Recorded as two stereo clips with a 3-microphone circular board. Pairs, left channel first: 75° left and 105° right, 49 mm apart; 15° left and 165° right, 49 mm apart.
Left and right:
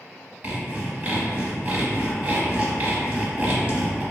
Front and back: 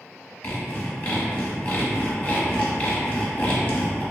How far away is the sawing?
About 0.8 m.